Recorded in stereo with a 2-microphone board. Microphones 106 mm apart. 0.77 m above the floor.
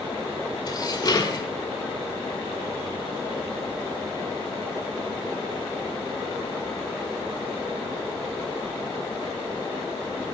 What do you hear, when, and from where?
0.7 s dishes clattering: 40° left (ahead or behind), 1.8 m